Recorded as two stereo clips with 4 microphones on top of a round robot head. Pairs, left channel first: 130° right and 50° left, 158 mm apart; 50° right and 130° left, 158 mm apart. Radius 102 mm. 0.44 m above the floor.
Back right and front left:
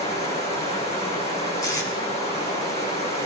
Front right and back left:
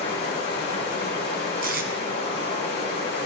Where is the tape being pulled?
160° left, 1.5 m.